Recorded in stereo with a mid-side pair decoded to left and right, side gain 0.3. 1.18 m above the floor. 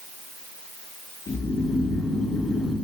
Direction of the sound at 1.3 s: 60° left.